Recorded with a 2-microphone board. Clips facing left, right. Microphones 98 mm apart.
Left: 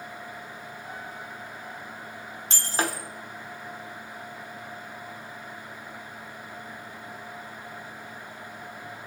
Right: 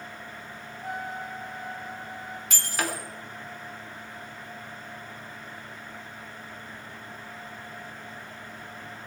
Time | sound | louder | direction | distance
0.8 | a trumpet | right 9 dB | 80° right | 2.5 m
2.5 | breaking glass | left 3 dB | 30° left (ahead or behind) | 2.5 m